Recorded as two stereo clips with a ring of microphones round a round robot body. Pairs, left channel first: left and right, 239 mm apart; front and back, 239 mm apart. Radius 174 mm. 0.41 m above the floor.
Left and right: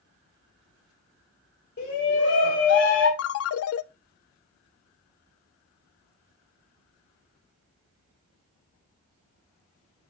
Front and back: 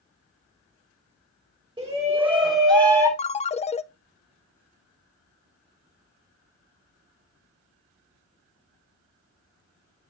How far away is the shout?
About 2 m.